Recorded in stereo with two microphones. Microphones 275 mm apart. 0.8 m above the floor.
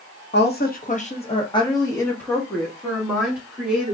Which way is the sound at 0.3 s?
35° left (ahead or behind).